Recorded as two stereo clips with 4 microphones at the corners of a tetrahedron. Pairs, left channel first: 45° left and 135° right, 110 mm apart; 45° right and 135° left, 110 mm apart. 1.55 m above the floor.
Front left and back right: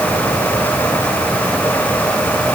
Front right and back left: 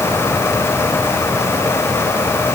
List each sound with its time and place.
Only background noise.